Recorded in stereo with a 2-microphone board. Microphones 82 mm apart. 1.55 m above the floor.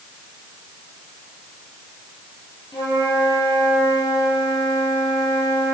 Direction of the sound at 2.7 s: 60° left (ahead or behind).